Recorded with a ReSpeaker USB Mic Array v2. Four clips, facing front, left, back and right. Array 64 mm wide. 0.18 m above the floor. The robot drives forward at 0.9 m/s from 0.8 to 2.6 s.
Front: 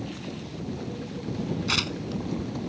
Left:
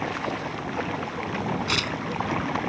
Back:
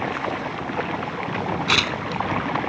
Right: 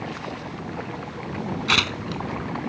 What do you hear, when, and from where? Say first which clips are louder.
0.0 s running water: left 4 dB, back 11 dB; 165° left
1.7 s tearing paper: right 3 dB, back 7 dB; 130° right; by 2.2 s 145° right